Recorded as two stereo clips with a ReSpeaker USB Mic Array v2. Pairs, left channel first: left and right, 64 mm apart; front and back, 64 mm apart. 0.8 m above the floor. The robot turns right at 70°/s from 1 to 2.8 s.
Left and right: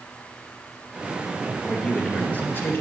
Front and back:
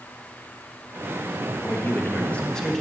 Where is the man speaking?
5° left, 1.0 m; by 2.8 s 85° left, 1.0 m.